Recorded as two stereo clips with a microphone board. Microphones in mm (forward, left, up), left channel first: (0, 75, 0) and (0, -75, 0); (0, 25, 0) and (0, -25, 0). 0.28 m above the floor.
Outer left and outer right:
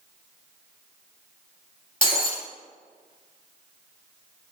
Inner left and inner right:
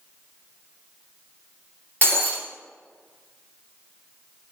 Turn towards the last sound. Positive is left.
turn(degrees=35)  # may be behind; listen again after turning